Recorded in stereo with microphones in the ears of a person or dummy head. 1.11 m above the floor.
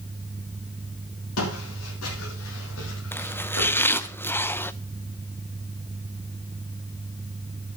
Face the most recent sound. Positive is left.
turn(degrees=15)  # may be behind; listen again after turning